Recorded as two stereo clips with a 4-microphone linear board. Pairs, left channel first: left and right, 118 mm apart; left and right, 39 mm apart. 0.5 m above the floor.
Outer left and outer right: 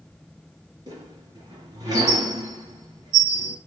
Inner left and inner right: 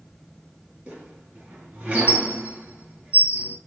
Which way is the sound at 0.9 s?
40° right (ahead or behind).